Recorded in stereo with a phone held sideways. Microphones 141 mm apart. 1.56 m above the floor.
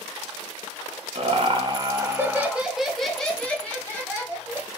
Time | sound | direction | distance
1.1 | laughter | 50° right (ahead or behind) | 0.9 m